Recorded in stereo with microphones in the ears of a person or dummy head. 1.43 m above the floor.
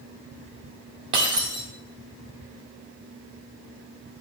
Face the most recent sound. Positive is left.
turn(degrees=-20)  # may be behind; listen again after turning